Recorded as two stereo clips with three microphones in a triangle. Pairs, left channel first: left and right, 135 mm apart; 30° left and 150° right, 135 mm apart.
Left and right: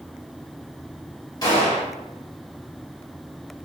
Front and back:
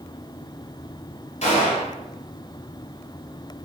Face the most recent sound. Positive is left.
turn(degrees=35)